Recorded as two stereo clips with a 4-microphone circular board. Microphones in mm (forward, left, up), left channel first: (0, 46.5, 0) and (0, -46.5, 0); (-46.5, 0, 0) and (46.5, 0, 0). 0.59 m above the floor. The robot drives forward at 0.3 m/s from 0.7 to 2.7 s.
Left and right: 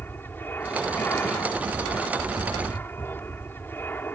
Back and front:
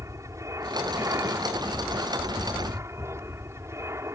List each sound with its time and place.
0.0 s an aircraft: 35° left